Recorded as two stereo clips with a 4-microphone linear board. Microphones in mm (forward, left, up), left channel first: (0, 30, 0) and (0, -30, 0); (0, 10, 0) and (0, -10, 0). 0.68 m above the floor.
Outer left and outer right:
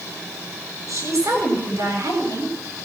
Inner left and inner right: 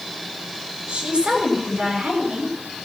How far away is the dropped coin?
I don't hear a dropped coin.